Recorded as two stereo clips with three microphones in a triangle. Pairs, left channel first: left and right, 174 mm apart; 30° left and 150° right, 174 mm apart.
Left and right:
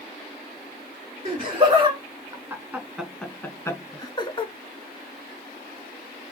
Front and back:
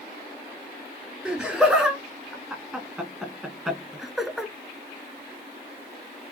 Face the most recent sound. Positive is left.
turn(degrees=120)